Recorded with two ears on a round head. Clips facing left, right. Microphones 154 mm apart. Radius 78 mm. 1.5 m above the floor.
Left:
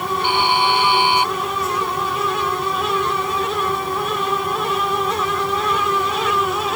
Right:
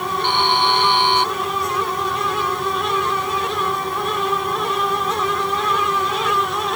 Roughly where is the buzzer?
Centre.